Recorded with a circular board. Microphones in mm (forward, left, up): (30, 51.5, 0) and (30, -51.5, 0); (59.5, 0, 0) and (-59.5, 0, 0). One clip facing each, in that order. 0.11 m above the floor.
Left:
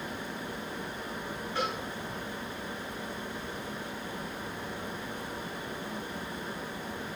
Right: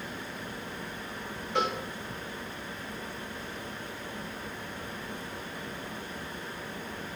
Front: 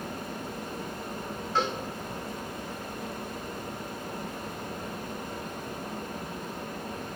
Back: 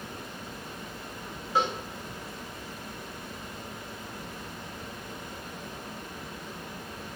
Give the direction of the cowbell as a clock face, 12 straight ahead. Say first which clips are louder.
Right 4 dB, back 1 dB; 3 o'clock.